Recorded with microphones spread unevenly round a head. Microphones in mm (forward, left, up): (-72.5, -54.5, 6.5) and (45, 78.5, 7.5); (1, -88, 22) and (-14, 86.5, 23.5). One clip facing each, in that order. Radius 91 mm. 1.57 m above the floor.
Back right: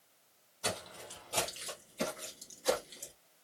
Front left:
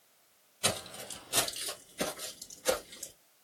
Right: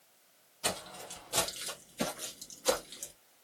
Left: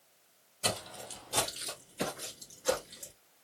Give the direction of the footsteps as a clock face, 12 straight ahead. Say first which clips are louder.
Front left 3 dB, left 2 dB; 11 o'clock.